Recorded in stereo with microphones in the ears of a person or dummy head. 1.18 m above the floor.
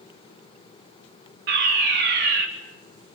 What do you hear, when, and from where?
1.5 s a fire alarm: 55° right (ahead or behind), 4 m